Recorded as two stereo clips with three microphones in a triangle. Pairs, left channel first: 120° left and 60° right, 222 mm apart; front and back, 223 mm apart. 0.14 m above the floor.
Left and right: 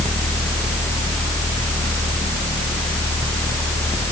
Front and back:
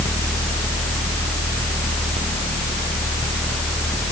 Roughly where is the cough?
I don't hear a cough.